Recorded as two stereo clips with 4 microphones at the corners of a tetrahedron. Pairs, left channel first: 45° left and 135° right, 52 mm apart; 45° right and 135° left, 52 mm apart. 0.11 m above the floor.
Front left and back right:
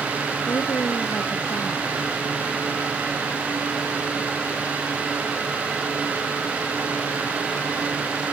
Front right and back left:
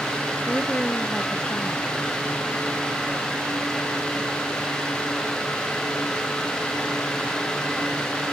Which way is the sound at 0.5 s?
20° left.